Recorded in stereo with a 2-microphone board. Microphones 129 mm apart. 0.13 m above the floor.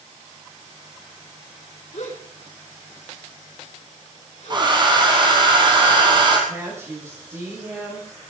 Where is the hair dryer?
35° right (ahead or behind), 2.5 m.